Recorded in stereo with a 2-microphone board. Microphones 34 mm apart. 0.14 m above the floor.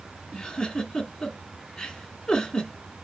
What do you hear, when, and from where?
0.3 s a giggle: 20° left (ahead or behind), 1.8 m